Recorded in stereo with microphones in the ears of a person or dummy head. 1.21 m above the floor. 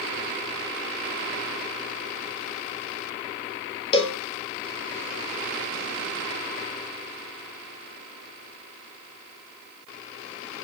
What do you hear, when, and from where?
3.9 s a cowbell: 35° left (ahead or behind), 0.5 m